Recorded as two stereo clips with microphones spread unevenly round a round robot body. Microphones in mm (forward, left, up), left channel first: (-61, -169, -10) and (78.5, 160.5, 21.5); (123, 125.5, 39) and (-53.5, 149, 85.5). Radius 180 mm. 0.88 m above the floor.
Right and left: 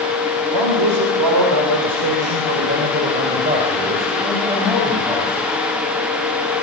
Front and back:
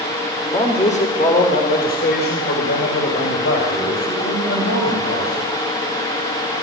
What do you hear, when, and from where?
0.5 s a man speaking: 50° left, 3 m; by 5.5 s 15° right, 6 m